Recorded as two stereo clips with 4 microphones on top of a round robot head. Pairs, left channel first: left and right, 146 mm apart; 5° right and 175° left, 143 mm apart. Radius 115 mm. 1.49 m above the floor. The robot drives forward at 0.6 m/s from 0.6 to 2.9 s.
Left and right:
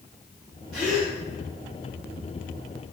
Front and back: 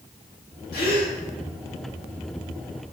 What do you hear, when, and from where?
0.7 s a gasp: straight ahead, 1.7 m